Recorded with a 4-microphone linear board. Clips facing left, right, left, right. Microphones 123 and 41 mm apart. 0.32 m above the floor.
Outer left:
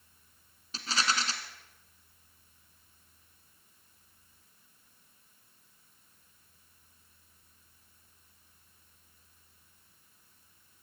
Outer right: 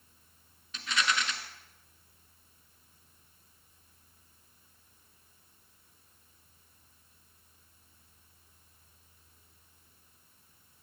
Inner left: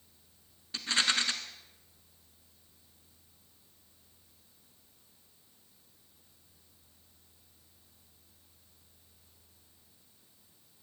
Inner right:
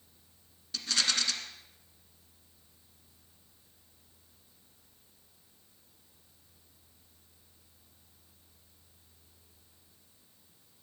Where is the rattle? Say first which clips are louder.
Even, inner left 2 dB; 35° left (ahead or behind), 1.3 m.